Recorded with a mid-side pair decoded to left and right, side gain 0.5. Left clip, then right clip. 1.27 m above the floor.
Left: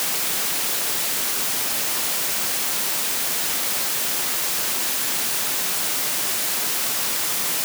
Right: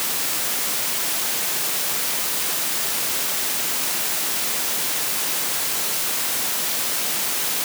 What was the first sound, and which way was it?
Only background noise.